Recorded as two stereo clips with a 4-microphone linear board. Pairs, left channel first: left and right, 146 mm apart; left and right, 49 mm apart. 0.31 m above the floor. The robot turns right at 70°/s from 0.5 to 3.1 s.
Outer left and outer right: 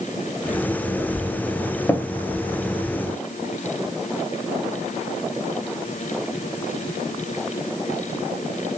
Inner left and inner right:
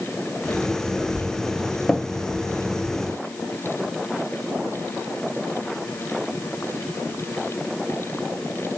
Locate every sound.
1.9 s tapping: 15° left (ahead or behind), 0.6 m; by 2.0 s 20° left (ahead or behind), 0.6 m